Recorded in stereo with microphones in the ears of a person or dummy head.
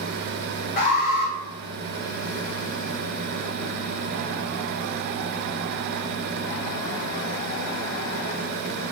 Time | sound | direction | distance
0.8 | an alarm | 30° left (ahead or behind) | 3 m